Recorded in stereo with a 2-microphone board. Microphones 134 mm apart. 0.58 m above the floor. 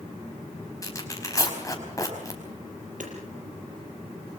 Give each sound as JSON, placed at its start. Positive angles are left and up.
{"t": 0.8, "sound": "tearing paper", "side_deg": 25, "distance_m": 5.0}
{"t": 3.0, "sound": "hammering", "side_deg": -70, "distance_m": 6.0}